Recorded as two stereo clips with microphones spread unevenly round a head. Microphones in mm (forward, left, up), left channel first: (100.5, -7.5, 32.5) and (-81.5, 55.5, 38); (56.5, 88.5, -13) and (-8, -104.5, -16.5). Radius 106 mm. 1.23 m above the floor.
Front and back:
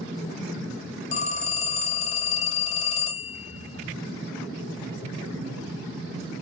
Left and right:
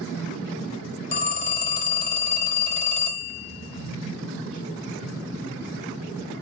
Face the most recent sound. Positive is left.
turn(degrees=30)